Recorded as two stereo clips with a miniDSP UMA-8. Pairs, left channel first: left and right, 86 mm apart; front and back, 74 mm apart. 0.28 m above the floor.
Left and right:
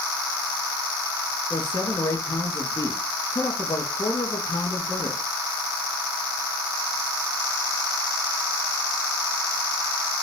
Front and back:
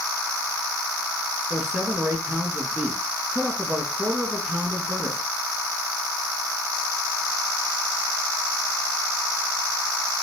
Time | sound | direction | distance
1.5 | a man speaking | 105° left | 4 m